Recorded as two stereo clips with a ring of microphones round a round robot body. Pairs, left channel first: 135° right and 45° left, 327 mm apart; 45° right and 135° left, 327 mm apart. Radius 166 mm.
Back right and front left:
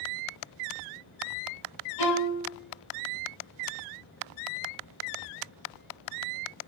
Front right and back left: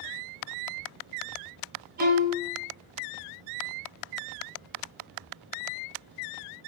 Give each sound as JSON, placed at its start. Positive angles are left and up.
{"t": 2.0, "sound": "a violin", "azimuth_deg": -160, "distance_m": 2.0}